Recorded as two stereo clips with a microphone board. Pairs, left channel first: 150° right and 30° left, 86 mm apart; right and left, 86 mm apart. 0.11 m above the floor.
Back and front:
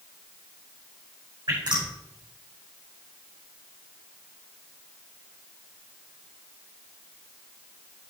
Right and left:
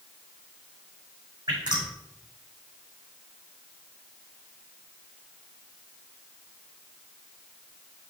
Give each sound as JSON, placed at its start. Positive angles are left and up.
{"t": 1.5, "sound": "dripping", "azimuth_deg": 60, "distance_m": 6.0}